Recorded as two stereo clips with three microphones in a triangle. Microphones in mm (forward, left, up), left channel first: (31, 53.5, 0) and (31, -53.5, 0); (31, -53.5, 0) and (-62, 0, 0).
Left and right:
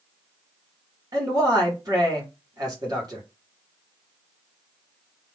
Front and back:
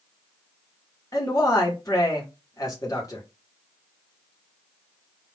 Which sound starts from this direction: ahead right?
A man speaking, at 1.1 s.